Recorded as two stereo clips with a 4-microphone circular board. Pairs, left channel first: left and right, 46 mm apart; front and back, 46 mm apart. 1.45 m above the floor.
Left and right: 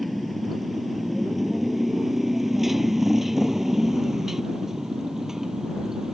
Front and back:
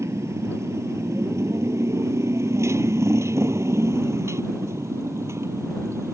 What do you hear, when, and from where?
0.0 s a motorcycle: straight behind; by 6.1 s 170° right